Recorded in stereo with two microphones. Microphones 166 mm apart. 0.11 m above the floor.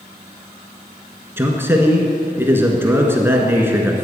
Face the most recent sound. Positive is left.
turn(degrees=-15)  # may be behind; listen again after turning